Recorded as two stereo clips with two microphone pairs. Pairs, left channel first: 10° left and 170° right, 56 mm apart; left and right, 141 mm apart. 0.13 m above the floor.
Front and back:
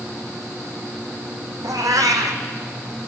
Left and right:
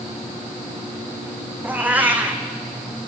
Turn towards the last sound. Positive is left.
turn(degrees=-170)